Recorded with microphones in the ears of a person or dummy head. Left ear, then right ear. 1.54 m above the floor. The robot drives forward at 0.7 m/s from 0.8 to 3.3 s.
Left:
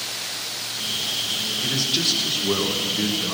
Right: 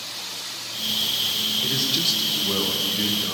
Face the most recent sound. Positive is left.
turn(degrees=0)  # may be behind; listen again after turning